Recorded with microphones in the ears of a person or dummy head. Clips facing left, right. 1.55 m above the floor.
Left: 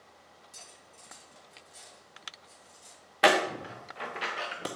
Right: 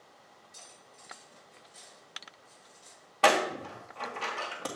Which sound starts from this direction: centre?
A door slam, at 3.2 s.